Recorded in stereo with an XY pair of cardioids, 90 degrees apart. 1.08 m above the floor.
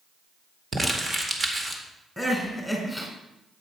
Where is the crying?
5° right, 3 m.